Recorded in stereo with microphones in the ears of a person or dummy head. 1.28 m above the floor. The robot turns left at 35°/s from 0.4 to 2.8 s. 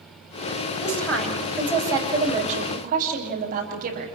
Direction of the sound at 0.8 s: 15° left.